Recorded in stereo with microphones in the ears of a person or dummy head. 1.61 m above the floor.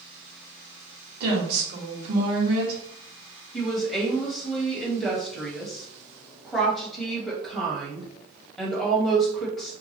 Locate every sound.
1.2 s a woman speaking: 55° right (ahead or behind), 1.5 m
3.5 s a woman speaking: centre (ahead or behind), 1.2 m